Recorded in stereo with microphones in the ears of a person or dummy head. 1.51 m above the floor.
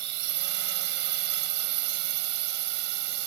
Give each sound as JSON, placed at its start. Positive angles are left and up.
{"t": 0.0, "sound": "a drone", "side_deg": -60}